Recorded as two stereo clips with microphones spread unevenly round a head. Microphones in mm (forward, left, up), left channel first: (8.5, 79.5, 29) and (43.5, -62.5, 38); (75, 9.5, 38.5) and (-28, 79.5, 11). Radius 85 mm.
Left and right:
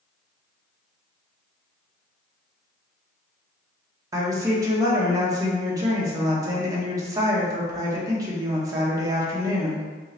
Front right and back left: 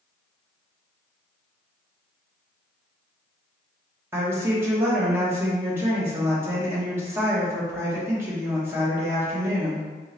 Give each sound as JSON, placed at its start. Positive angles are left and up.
{"t": 4.1, "sound": "a woman speaking", "azimuth_deg": -145, "distance_m": 0.9}